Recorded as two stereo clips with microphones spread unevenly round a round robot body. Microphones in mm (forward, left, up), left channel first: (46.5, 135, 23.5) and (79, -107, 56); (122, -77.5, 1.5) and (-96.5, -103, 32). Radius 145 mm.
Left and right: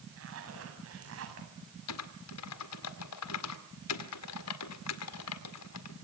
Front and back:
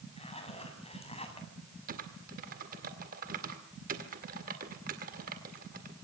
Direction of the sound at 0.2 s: 55° right.